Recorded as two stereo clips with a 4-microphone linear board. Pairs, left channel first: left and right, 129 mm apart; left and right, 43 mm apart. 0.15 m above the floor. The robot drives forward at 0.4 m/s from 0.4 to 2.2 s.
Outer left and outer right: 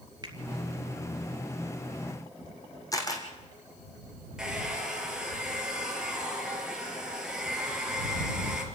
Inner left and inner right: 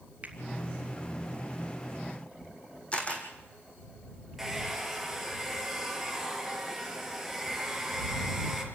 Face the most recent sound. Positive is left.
turn(degrees=-5)  # may be behind; listen again after turning